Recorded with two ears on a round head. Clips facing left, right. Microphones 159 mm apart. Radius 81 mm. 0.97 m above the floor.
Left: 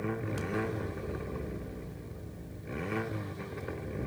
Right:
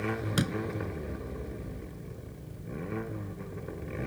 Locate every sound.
0.4 s a door slam: 85° right